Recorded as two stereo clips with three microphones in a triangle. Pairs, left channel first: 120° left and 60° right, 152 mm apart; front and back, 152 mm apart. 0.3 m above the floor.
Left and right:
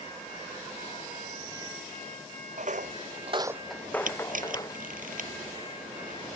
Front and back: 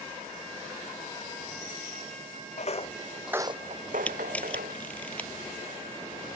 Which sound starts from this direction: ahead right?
Footsteps, at 2.6 s.